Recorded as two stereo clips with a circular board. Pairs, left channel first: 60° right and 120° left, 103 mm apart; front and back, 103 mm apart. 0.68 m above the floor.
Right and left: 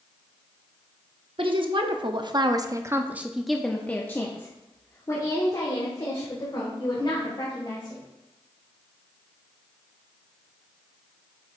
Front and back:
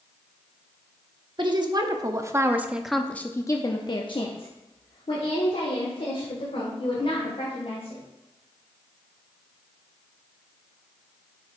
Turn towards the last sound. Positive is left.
turn(degrees=-15)